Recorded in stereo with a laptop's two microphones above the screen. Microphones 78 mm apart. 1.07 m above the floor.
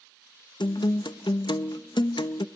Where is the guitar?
70° left (ahead or behind), 0.6 m.